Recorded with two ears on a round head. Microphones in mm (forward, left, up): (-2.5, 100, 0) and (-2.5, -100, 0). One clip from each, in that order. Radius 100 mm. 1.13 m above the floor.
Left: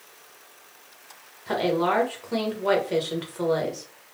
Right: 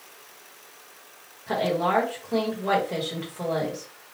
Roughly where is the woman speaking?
Left.